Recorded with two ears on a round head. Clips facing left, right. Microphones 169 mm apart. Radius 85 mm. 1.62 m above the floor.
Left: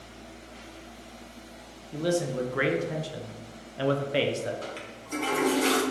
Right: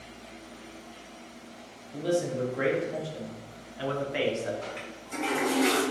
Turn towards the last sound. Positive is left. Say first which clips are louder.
# even
turn(degrees=40)  # may be behind; listen again after turning